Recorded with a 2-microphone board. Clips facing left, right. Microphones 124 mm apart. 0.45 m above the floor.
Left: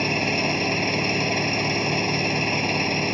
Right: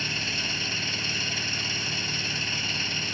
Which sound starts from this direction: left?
An engine running, at 0.0 s.